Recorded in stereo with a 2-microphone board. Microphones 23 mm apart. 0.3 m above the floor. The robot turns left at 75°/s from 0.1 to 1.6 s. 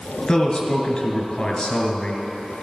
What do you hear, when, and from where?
0.3 s a man speaking: 150° left, 2.0 m; by 2.6 s 50° left, 2.0 m